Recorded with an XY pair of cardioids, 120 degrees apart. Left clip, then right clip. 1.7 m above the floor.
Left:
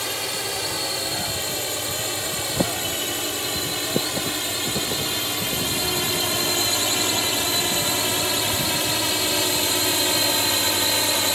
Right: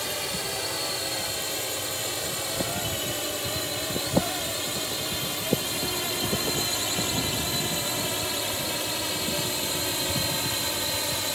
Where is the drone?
20° left; by 11.4 s 40° left.